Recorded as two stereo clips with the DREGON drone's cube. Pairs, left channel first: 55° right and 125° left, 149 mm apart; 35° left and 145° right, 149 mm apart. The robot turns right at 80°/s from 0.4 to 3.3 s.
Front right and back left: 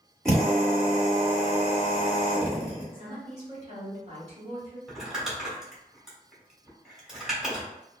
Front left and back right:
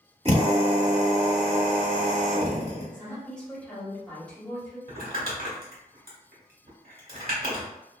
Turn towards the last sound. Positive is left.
turn(degrees=-150)